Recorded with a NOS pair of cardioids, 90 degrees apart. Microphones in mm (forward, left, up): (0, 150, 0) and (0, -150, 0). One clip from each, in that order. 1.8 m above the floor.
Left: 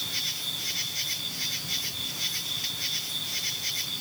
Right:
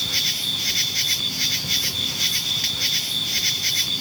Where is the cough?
No cough in this recording.